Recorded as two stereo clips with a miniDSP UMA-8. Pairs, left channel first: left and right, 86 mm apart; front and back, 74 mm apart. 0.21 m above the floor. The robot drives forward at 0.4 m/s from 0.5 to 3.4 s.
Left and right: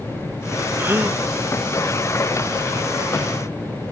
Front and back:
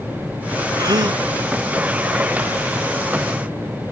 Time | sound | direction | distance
0.8 | a gasp | 155° right | 0.9 m